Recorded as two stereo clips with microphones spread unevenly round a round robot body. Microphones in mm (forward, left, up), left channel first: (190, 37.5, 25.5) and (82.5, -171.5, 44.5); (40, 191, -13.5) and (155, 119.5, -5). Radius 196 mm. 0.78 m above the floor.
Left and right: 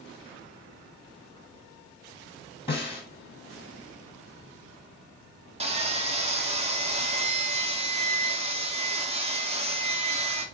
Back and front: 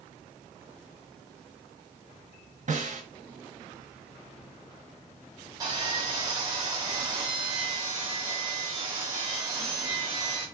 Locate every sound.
2.7 s a snare drum: 5° right, 1.9 m
5.6 s sawing: 70° right, 0.7 m